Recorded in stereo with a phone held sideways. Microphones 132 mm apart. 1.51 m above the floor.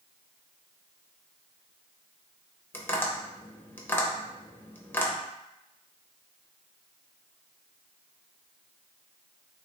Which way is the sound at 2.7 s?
15° left (ahead or behind).